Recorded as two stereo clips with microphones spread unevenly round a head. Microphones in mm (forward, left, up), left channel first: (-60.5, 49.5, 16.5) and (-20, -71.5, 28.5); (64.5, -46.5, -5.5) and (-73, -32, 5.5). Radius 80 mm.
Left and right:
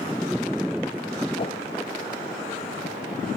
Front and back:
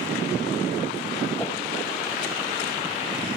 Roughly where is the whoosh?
Left.